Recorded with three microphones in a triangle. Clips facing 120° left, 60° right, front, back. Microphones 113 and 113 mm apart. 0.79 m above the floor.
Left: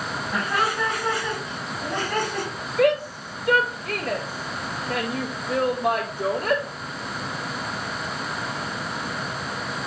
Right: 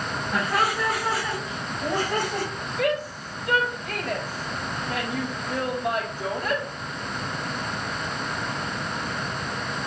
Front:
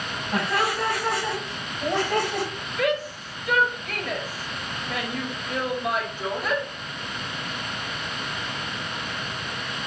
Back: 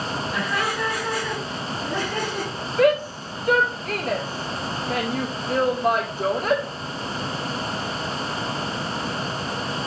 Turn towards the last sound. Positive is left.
turn(degrees=145)